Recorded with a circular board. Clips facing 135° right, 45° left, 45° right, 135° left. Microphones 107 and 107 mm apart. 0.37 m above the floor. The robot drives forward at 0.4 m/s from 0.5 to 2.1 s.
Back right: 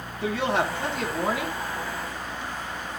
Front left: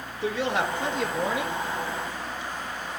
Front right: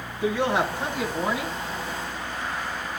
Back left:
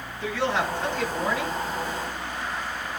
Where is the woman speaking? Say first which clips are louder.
Back right 1 dB, front right 3 dB; 120° right, 3 m; by 1.6 s 125° right, 3.5 m.